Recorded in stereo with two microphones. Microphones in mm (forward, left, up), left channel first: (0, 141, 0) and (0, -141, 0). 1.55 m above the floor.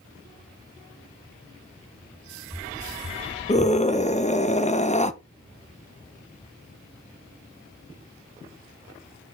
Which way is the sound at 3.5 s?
25° left (ahead or behind).